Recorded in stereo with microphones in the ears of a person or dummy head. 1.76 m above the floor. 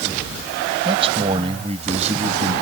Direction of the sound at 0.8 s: 35° right (ahead or behind).